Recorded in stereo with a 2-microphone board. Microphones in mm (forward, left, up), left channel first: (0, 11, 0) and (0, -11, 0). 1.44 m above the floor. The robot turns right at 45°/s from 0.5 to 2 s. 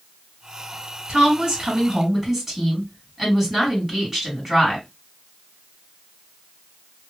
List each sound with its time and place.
1.1 s a woman speaking: 55° right, 1.6 m; by 4.9 s 10° right, 1.6 m